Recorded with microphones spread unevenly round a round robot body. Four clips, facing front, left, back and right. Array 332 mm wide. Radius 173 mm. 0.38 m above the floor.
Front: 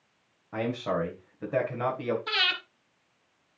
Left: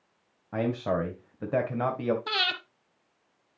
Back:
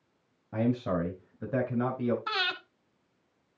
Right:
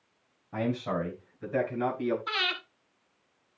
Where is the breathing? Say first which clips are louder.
Left 2 dB, even; 130° left, 0.8 m.